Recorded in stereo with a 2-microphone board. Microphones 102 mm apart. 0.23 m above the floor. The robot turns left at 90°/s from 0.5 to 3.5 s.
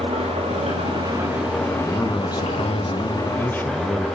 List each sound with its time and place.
0.0 s an engine running: 90° right, 7.5 m; by 4.2 s straight ahead, 7.5 m
1.8 s a man speaking: 175° left, 2.5 m; by 4.1 s 20° left, 2.5 m